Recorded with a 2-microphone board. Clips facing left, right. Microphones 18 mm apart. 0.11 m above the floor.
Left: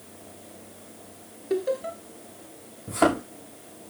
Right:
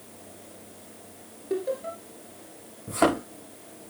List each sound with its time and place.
1.5 s laughter: 25° left (ahead or behind), 1.7 m
2.9 s a thud: 5° right (ahead or behind), 5 m